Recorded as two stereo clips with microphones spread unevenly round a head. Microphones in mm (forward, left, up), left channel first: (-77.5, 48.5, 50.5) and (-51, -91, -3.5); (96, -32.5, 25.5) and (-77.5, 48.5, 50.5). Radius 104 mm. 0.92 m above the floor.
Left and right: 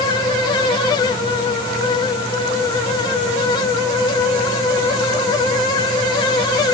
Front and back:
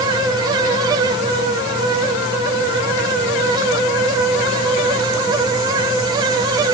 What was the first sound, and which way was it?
Only background noise.